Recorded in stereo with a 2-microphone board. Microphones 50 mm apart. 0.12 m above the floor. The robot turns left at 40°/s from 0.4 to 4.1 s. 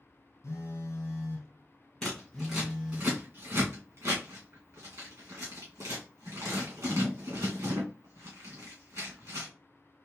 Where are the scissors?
5° left (ahead or behind), 2 m; by 9.5 s 75° right (ahead or behind), 2 m.